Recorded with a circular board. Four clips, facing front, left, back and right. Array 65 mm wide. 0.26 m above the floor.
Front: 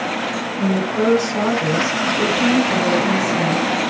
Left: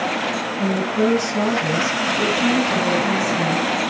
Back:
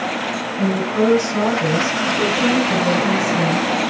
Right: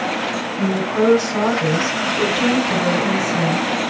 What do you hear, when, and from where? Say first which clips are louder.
0.6 s a woman speaking: right 2 dB, back 1 dB; 100° right, 2 m